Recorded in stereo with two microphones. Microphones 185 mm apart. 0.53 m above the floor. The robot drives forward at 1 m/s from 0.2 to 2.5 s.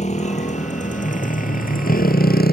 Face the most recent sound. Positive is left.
turn(degrees=55)  # may be behind; listen again after turning